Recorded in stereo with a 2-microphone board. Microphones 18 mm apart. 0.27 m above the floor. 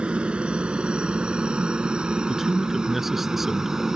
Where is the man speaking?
15° right (ahead or behind).